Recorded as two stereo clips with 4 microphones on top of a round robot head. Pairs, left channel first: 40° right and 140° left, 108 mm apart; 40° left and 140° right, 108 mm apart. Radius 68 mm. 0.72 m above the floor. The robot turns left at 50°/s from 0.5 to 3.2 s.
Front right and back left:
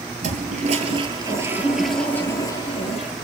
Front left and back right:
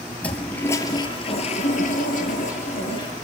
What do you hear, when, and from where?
0.2 s a toilet flushing: 120° left, 5.5 m; by 3.1 s 15° right, 5.5 m